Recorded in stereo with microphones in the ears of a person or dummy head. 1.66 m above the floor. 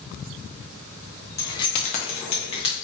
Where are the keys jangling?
15° left (ahead or behind), 0.9 m; by 2.7 s 25° left (ahead or behind), 1.3 m.